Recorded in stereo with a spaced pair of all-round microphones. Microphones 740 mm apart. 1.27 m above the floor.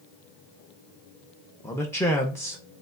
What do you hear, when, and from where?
1.6 s a man speaking: 5° left (ahead or behind), 0.7 m